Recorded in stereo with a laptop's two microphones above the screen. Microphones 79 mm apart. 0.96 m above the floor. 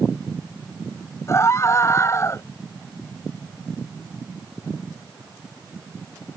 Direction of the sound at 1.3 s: 35° left (ahead or behind).